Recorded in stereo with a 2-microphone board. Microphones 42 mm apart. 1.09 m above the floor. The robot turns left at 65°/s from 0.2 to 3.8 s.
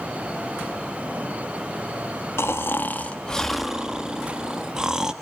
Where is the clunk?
I don't hear a clunk.